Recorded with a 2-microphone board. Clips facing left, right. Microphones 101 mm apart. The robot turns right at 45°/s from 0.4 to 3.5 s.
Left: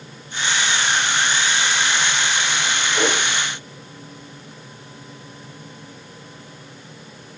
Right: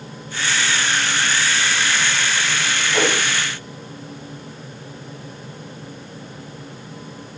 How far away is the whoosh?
About 2 m.